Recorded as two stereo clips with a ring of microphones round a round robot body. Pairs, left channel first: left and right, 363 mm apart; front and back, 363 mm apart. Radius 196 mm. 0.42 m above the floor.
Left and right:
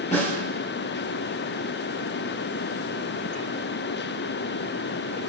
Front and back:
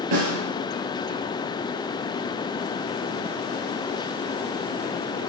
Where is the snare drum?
165° left, 4.5 m.